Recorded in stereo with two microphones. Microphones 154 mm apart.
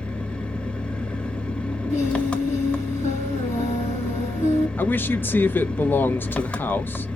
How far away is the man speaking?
About 0.6 m.